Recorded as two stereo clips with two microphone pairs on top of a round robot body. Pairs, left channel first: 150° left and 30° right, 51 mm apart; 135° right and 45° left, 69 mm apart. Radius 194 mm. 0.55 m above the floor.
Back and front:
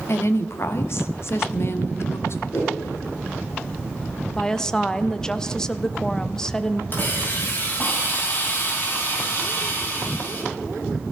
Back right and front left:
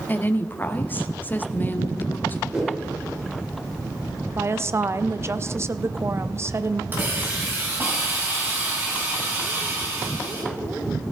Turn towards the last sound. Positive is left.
turn(degrees=105)